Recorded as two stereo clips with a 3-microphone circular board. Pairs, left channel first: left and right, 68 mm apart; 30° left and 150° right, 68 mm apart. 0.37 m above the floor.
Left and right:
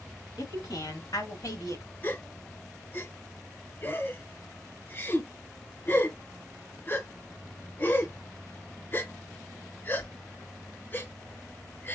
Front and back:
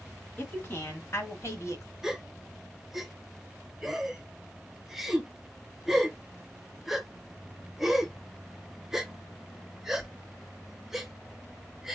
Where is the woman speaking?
85° left, 2.5 m; by 1.9 s 60° left, 1.7 m.